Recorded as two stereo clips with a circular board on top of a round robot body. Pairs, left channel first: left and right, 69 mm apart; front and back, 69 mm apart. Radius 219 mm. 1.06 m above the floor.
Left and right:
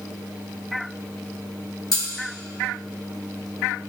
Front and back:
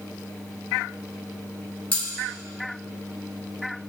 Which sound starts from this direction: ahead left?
Cutlery clinking, at 1.9 s.